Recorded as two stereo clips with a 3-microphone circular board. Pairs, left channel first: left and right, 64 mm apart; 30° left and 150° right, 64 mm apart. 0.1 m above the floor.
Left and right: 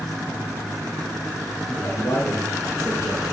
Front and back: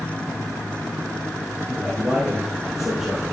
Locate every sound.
1.7 s a man speaking: 130° left, 3 m